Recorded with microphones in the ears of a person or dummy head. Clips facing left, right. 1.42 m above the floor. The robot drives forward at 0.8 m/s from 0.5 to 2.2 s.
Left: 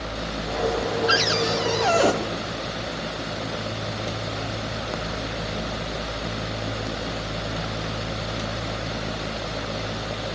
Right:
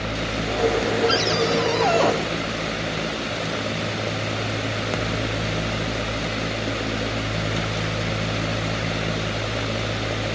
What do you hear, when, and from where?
1.1 s a cupboard door: 25° left (ahead or behind), 1.1 m; by 2.1 s 15° left (ahead or behind), 1.9 m